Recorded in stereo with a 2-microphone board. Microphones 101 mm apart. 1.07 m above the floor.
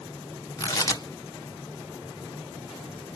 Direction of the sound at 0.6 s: 30° left (ahead or behind).